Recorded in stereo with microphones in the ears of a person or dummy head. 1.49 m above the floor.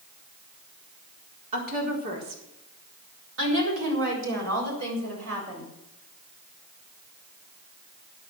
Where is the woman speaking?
40° right (ahead or behind), 4 m; by 5.7 s 90° right, 7.5 m.